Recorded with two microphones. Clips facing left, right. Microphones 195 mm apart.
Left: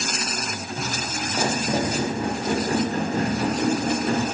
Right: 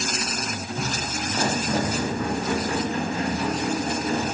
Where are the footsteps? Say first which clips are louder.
Even; centre (ahead or behind), 1.9 m; by 4.2 s 65° left (ahead or behind), 1.8 m.